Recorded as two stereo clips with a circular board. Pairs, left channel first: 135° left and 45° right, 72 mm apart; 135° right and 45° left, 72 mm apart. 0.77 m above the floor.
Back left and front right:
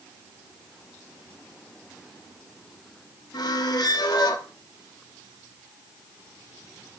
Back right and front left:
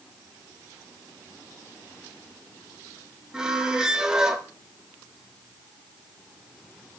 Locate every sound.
3.3 s a squeak: 125° left, 1.0 m